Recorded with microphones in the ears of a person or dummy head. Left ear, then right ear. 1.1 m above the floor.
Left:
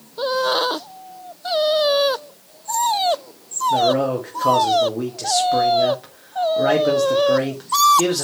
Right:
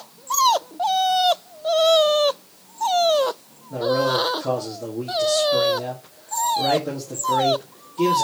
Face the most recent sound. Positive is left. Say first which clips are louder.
# left 2 dB
turn(degrees=50)  # may be behind; listen again after turning